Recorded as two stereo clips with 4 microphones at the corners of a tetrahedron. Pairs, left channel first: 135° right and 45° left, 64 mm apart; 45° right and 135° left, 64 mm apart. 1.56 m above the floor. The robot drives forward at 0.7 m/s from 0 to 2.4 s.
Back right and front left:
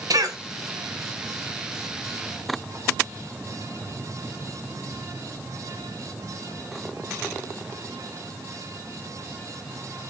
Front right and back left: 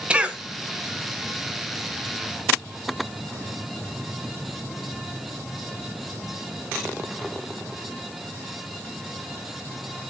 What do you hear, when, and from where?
0.1 s a cough: 65° left, 2.0 m; by 0.4 s 70° left, 1.9 m